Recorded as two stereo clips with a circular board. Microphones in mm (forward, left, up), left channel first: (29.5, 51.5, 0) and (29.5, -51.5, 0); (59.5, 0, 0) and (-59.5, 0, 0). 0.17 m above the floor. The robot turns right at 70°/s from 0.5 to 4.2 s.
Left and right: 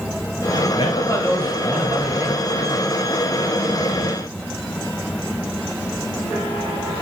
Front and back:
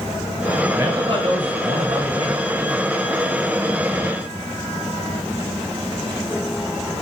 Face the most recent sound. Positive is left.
turn(degrees=-5)